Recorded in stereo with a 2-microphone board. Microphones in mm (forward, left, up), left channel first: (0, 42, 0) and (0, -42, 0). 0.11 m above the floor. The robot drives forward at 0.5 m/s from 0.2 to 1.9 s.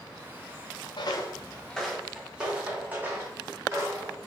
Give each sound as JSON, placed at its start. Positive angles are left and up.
{"t": 1.0, "sound": "footsteps", "side_deg": 65, "distance_m": 0.6}